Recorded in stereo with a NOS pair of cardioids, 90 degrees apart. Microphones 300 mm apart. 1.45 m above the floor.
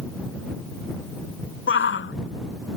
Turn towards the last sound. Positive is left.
turn(degrees=40)